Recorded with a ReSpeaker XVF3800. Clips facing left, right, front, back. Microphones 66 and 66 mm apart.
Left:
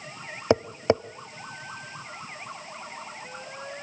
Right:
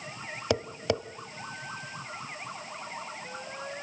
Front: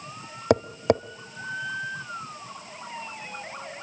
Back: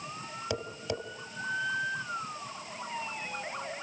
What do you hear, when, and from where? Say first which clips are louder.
0.5 s tapping: left 7 dB, front 15 dB; 30° left, 0.6 m